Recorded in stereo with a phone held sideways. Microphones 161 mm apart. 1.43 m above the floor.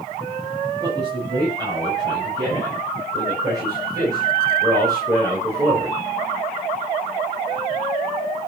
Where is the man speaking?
30° right (ahead or behind), 8.5 m; by 6.0 s 20° right (ahead or behind), 6 m.